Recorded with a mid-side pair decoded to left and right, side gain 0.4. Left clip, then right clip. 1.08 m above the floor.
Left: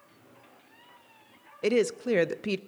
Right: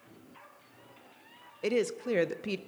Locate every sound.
1.6 s a woman speaking: 35° left, 0.5 m